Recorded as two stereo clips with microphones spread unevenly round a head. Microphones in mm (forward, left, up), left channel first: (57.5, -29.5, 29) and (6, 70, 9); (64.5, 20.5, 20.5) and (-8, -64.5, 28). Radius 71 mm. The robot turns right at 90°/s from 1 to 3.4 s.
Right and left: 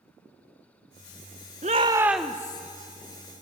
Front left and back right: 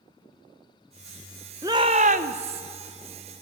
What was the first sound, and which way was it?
A shout, 160° left.